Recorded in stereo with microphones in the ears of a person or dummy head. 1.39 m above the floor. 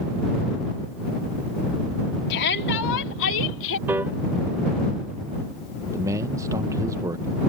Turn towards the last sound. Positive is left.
turn(degrees=-15)  # may be behind; listen again after turning